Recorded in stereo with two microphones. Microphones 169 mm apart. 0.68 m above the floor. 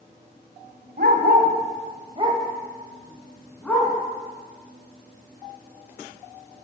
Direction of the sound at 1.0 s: 70° right (ahead or behind).